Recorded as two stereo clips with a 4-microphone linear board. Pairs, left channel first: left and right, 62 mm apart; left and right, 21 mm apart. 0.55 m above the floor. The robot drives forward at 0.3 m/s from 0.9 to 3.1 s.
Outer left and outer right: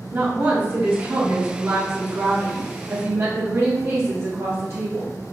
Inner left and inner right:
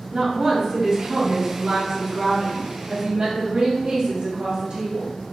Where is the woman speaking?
30° right (ahead or behind), 1.4 m; by 5.2 s 45° right (ahead or behind), 1.0 m.